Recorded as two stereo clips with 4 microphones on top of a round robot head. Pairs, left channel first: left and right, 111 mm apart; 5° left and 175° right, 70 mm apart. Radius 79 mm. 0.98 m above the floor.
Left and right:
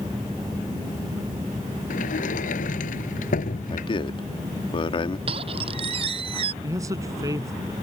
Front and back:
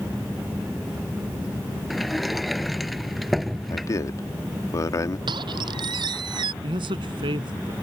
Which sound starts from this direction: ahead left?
A man speaking, at 3.7 s.